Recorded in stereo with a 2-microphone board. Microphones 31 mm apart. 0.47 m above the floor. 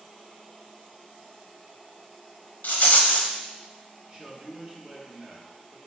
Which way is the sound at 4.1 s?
25° right (ahead or behind).